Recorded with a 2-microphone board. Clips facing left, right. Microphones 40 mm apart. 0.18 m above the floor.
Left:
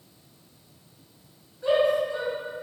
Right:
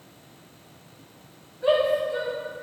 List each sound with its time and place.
1.6 s a shout: 20° right (ahead or behind), 2.5 m